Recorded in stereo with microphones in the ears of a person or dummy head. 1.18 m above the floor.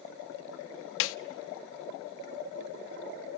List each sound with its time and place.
1.0 s a snare drum: 70° left (ahead or behind), 0.6 m